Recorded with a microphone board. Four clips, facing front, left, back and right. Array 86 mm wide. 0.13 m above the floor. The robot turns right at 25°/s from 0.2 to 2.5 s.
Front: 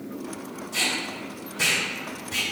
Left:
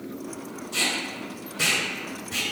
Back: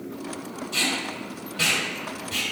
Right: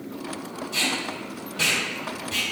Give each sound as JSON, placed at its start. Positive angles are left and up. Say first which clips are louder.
{"t": 0.7, "sound": "tape being pulled", "louder": "right 1 dB, back 1 dB", "azimuth_deg": -165, "distance_m": 1.7}